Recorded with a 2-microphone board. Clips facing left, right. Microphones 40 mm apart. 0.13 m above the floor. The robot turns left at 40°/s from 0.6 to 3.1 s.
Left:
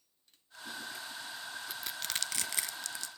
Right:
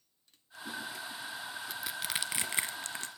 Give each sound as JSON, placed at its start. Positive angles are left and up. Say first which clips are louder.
{"t": 1.7, "sound": "crushing", "louder": "right 3 dB", "side_deg": 0, "distance_m": 0.5}